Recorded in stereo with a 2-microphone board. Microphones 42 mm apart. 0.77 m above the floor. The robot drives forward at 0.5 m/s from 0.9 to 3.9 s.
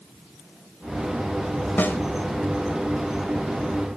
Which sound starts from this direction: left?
A snare drum, at 1.8 s.